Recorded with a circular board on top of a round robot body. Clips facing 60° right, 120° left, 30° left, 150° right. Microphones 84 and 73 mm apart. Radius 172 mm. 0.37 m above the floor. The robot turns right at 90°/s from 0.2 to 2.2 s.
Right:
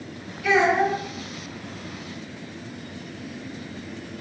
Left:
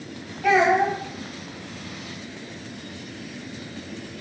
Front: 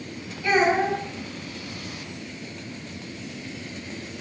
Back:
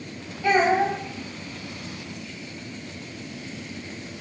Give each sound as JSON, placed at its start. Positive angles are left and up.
{"t": 0.4, "sound": "a child speaking", "azimuth_deg": 165, "distance_m": 1.6}